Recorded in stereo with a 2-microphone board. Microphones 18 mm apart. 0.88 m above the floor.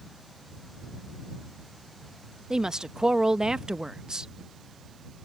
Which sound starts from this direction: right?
A woman speaking, at 2.5 s.